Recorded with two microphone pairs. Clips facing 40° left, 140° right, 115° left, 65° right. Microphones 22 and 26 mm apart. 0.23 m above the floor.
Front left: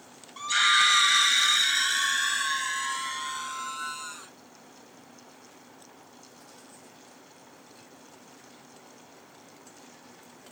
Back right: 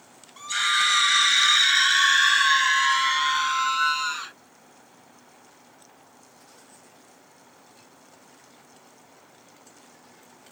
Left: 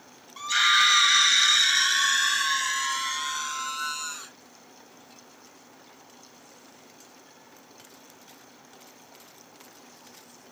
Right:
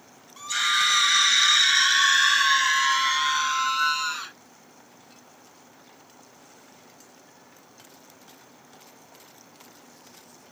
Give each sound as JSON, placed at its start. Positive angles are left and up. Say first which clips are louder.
{"t": 0.4, "sound": "a scream", "louder": "front left 1 dB, left 3 dB", "azimuth_deg": 90}